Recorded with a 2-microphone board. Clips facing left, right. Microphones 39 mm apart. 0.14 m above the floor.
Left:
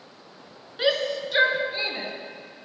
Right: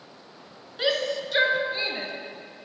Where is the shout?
5° left (ahead or behind), 1.7 m; by 2.1 s centre (ahead or behind), 2.5 m.